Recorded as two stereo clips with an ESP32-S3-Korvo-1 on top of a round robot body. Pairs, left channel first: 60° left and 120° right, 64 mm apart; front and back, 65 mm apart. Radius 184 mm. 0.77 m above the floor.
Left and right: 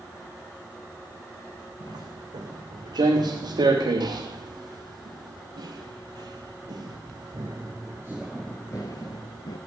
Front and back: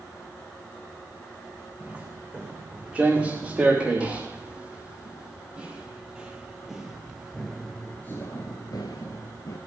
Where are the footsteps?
110° right, 4 m; by 9.6 s 45° left, 1.0 m.